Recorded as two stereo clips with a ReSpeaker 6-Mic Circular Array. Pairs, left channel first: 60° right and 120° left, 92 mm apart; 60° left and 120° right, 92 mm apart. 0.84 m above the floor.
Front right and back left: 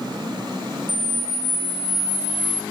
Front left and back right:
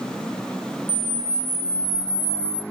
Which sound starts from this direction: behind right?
A camera shutter, at 0.9 s.